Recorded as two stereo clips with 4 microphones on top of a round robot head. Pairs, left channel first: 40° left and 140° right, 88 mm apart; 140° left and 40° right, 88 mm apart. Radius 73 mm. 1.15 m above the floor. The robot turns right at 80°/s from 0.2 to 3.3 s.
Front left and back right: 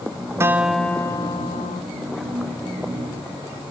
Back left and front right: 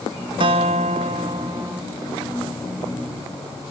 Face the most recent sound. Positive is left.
turn(degrees=155)